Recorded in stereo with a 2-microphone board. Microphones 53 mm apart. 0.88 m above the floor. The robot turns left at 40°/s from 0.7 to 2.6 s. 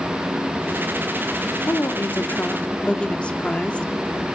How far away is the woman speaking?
About 1.9 m.